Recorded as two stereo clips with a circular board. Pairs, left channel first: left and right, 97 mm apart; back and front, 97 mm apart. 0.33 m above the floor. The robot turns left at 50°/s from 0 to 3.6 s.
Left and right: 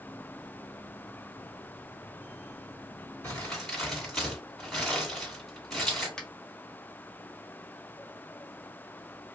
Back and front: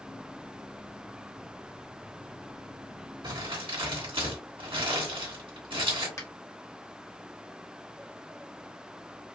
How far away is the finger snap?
About 1.3 m.